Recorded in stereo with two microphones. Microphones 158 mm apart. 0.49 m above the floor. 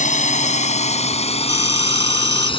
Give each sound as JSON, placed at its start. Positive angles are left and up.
{"t": 0.0, "sound": "a drone", "side_deg": 55}
{"t": 1.5, "sound": "a phone ringing", "side_deg": 20}